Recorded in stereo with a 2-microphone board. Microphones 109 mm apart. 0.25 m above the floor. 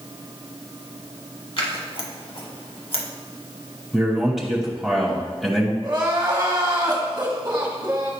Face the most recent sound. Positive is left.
turn(degrees=-40)  # may be behind; listen again after turning